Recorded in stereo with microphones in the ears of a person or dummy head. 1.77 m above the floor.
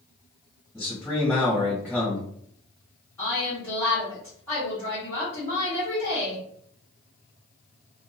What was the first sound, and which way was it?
A man speaking, centre (ahead or behind).